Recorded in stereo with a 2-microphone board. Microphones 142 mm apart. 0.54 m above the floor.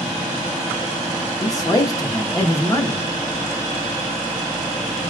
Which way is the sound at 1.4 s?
25° left (ahead or behind).